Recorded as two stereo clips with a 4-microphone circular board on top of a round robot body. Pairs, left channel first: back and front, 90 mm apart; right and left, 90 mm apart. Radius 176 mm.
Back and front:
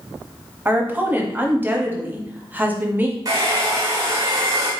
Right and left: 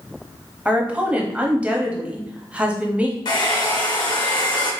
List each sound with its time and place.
0.7 s a woman speaking: 35° left, 1.0 m
3.2 s a hair dryer: 55° right, 1.3 m